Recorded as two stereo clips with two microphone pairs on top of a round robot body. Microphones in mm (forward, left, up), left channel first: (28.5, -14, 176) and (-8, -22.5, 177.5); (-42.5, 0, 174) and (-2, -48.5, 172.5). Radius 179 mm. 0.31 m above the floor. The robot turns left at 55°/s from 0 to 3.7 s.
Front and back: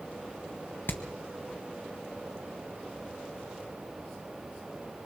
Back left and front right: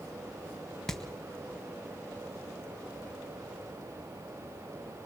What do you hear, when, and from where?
0.9 s hammering: 45° left, 1.3 m; by 1.0 s 40° left, 1.3 m